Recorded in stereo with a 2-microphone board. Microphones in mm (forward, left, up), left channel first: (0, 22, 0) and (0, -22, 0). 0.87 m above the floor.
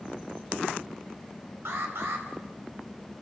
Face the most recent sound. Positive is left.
turn(degrees=-65)  # may be behind; listen again after turning